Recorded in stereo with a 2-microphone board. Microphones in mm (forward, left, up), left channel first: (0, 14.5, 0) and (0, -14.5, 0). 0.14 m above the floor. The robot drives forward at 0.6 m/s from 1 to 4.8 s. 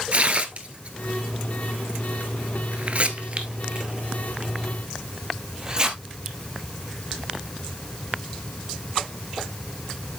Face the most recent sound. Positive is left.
turn(degrees=-25)  # may be behind; listen again after turning